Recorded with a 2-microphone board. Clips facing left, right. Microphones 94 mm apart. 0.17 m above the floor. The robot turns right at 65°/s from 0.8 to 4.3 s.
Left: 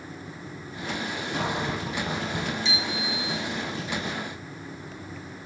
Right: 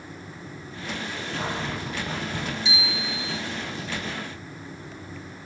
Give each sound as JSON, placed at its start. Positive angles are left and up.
{"t": 1.3, "sound": "a cupboard door", "azimuth_deg": 115, "distance_m": 4.0}
{"t": 2.6, "sound": "a bicycle bell", "azimuth_deg": -15, "distance_m": 5.0}